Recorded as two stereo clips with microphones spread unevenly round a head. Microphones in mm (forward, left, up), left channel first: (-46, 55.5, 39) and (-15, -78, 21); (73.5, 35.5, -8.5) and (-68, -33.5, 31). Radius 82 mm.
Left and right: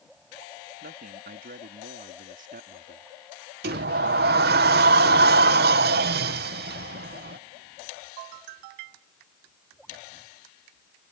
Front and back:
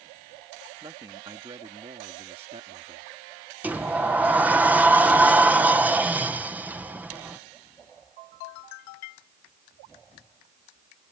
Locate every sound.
0.8 s a man speaking: 90° right; by 3.1 s 100° right
3.6 s a sliding door: 75° right